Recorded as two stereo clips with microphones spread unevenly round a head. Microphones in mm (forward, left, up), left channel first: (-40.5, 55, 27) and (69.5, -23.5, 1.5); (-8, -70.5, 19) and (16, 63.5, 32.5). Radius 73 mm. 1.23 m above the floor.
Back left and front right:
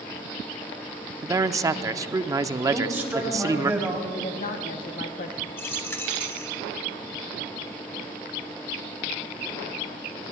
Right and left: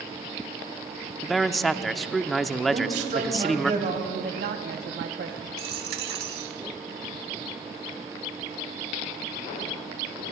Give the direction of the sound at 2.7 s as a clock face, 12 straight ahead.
11 o'clock.